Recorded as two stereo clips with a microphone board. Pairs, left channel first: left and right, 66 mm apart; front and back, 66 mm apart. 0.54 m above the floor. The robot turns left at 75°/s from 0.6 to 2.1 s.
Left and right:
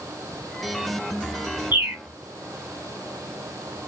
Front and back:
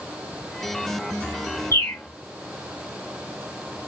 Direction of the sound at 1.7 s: 30° right.